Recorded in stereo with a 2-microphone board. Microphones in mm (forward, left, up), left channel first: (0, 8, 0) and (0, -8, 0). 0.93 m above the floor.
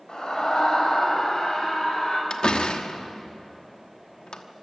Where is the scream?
50° left (ahead or behind), 4.5 m; by 2.2 s 45° left (ahead or behind), 5.5 m.